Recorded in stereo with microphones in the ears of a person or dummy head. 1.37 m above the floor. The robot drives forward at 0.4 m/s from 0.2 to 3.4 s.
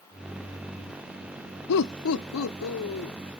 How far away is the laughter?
About 0.6 m.